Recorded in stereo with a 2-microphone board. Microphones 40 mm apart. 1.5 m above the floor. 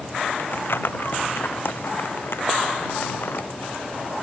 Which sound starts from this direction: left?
Crumpling, at 0.4 s.